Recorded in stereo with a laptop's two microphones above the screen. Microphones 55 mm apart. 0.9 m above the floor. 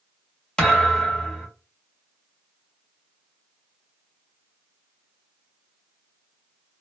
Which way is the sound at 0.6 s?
15° left (ahead or behind).